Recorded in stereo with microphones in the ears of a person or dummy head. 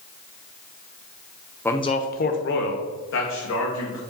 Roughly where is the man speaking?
Centre.